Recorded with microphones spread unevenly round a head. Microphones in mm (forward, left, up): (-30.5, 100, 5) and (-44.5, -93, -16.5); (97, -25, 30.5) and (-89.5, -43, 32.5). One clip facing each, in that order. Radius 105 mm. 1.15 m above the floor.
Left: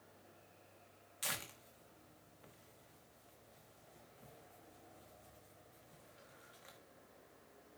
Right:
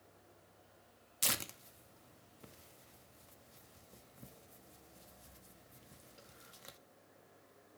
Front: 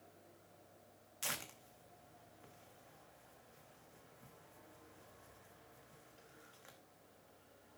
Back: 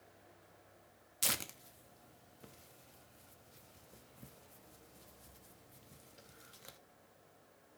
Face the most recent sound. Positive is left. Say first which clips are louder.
# right 5 dB, back 4 dB
turn(degrees=-130)